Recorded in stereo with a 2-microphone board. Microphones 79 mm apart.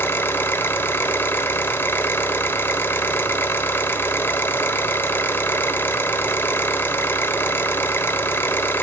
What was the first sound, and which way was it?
An engine running, 25° left (ahead or behind).